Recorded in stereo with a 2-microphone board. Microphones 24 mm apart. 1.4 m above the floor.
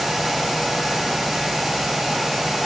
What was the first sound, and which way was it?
Only background noise.